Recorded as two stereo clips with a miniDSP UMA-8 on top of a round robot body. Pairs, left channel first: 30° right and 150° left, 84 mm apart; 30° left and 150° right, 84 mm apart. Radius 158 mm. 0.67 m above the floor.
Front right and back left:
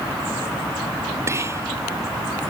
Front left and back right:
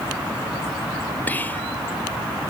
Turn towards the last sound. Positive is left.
turn(degrees=100)